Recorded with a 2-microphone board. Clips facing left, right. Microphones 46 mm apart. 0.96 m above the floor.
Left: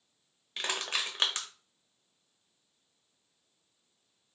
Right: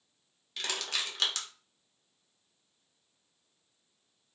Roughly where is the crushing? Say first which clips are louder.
Left 2 dB; left.